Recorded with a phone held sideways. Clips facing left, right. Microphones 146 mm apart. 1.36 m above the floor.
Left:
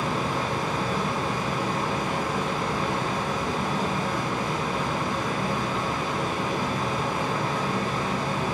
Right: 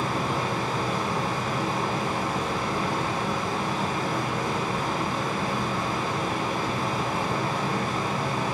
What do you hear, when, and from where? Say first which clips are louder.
0.0 s a fan: even; 25° right (ahead or behind), 1.6 m